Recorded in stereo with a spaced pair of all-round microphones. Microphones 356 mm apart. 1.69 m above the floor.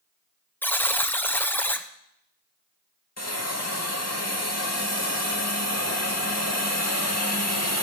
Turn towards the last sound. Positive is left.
turn(degrees=45)  # may be behind; listen again after turning